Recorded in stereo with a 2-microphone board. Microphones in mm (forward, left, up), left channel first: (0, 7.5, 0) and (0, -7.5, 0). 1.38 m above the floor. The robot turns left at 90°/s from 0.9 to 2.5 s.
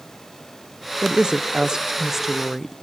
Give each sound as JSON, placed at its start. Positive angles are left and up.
{"t": 1.0, "sound": "a woman speaking", "azimuth_deg": -50, "distance_m": 0.8}